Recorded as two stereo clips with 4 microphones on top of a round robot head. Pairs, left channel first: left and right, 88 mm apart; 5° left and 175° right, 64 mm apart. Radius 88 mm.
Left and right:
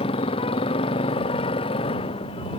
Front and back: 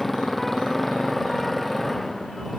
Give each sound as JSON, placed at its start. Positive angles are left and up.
{"t": 0.0, "sound": "a motorcycle", "azimuth_deg": 90}